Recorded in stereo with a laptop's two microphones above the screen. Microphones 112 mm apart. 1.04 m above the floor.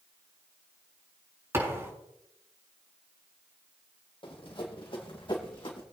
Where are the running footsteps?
55° left (ahead or behind), 2 m; by 5.8 s 50° left (ahead or behind), 3 m.